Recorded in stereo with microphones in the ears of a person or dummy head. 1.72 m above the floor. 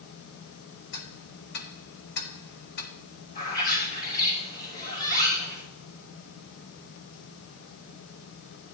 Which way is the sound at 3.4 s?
45° left (ahead or behind).